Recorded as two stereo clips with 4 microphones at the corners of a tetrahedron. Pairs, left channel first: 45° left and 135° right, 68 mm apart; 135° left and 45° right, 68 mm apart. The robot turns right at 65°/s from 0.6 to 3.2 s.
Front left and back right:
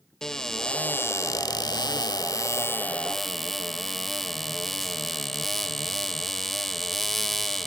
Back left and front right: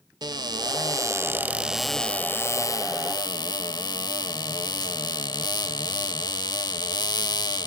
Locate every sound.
0.2 s a cupboard door: 35° right, 0.5 m; by 7.7 s 130° left, 0.5 m